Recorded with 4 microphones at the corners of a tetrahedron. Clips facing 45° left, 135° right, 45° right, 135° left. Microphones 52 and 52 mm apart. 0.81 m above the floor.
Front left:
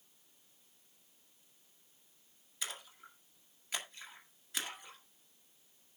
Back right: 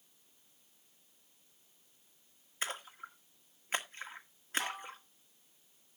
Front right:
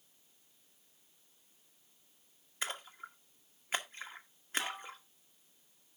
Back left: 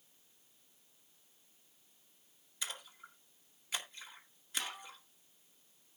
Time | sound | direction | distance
2.6 | a splash | 90° right | 1.8 m
4.6 | dishes clattering | 115° right | 2 m